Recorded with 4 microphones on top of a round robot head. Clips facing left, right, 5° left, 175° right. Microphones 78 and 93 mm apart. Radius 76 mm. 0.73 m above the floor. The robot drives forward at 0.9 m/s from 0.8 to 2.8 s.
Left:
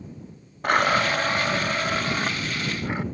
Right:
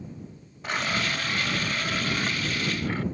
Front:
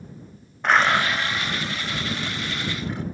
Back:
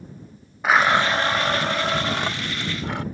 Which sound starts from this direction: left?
A blender, at 0.6 s.